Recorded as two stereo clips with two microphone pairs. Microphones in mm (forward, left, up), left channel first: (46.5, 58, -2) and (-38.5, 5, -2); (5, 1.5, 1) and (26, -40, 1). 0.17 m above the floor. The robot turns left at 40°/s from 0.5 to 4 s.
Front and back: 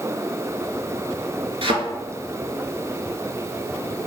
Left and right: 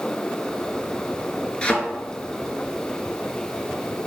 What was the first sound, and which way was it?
A thud, 170° right.